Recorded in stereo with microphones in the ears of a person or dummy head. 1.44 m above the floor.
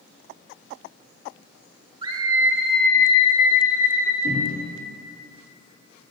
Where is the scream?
25° right (ahead or behind), 1.5 m; by 4.1 s 70° left (ahead or behind), 1.6 m.